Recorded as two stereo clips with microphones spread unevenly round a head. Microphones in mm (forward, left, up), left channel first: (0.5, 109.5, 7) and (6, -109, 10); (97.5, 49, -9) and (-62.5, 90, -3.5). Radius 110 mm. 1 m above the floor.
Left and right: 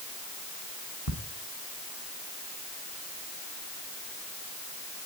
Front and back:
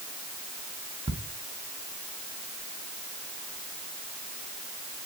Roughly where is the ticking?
Left.